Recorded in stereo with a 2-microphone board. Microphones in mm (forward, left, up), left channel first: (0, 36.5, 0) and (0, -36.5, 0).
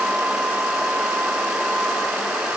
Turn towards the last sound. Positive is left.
No sound to turn to.